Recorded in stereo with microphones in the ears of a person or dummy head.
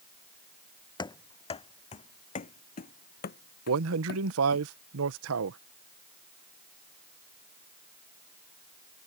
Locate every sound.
1.0 s running footsteps: 20° left (ahead or behind); by 4.6 s 55° left (ahead or behind)
3.7 s a man speaking: 75° right (ahead or behind)